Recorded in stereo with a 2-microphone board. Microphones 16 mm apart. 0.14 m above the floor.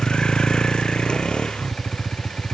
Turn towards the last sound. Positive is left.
turn(degrees=65)  # may be behind; listen again after turning